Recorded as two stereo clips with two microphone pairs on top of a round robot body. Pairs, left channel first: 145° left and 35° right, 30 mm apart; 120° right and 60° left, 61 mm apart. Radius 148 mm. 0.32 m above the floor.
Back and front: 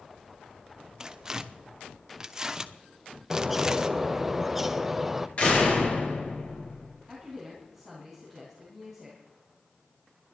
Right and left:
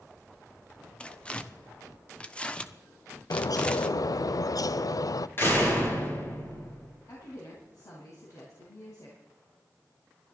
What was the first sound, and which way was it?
Tearing paper, 95° right.